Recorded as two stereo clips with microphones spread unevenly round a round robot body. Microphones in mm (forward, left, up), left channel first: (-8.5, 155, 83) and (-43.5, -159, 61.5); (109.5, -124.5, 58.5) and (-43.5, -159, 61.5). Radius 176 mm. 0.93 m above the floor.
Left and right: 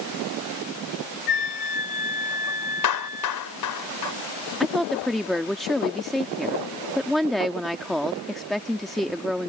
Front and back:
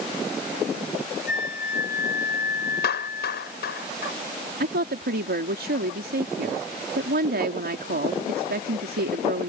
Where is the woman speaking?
175° left.